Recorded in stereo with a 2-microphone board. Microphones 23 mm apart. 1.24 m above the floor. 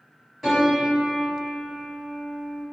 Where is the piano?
15° right (ahead or behind), 1.5 m.